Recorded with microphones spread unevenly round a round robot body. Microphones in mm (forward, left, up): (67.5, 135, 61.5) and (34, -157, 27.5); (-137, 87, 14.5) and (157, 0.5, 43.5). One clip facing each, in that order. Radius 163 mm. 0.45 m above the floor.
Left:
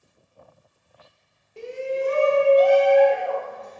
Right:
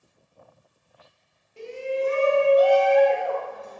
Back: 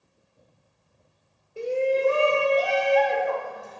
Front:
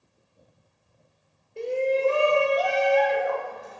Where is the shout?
85° left, 1.2 m; by 3.8 s 170° right, 1.4 m.